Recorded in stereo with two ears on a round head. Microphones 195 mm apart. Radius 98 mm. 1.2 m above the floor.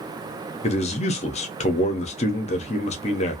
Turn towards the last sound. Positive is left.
turn(degrees=30)  # may be behind; listen again after turning